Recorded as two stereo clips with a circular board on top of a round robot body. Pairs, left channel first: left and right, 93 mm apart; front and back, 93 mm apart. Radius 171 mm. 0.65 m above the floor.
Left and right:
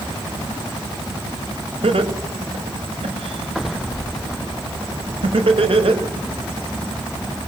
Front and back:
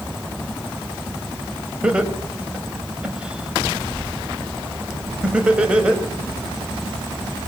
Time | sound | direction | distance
1.8 | laughter | 100° right | 5 m